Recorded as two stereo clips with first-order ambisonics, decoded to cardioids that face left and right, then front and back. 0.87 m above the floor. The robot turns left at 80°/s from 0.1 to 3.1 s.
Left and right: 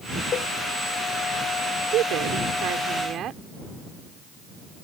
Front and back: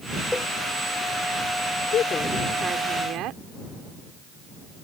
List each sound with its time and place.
0.3 s a cowbell: 75° left; by 0.5 s 60° left
1.9 s a woman speaking: 45° right; by 3.4 s 140° right